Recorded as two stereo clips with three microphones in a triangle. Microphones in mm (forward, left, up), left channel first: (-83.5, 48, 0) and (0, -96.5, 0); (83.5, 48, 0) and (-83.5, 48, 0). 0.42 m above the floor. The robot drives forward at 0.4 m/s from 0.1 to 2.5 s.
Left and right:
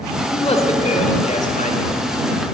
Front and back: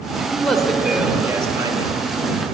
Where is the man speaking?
80° left, 1.1 m; by 2.0 s 125° left, 1.2 m.